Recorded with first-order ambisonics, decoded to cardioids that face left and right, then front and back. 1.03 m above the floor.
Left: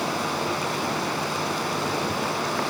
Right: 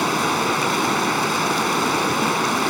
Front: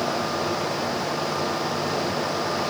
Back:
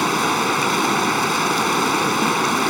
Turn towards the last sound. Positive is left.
turn(degrees=-155)